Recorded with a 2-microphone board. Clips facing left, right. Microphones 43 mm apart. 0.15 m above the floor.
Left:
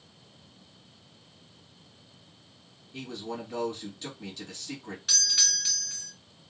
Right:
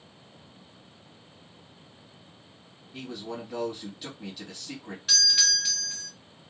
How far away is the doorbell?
About 1.5 m.